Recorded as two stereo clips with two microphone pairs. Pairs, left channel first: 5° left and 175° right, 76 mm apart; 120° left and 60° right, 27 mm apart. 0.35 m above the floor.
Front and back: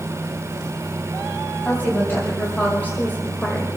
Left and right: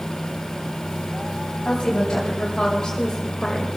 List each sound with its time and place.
1.6 s a woman speaking: 65° left, 2.5 m; by 3.7 s 45° left, 1.6 m